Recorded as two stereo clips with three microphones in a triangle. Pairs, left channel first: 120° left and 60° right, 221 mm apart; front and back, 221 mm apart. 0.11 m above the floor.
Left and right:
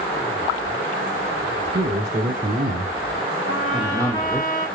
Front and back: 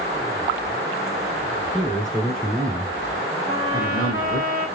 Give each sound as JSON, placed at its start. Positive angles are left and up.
{"t": 1.7, "sound": "a man speaking", "azimuth_deg": -90, "distance_m": 2.5}
{"t": 3.5, "sound": "a trumpet", "azimuth_deg": -110, "distance_m": 2.0}